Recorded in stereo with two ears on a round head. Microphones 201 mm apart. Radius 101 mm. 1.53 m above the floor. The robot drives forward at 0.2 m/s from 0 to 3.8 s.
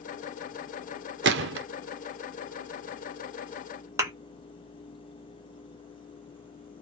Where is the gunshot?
50° right (ahead or behind), 0.5 m; by 1.7 s 55° right (ahead or behind), 0.5 m.